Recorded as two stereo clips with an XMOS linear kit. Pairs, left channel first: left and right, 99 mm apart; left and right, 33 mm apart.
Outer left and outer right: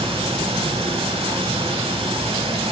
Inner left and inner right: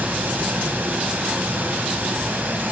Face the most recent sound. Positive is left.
turn(degrees=-75)  # may be behind; listen again after turning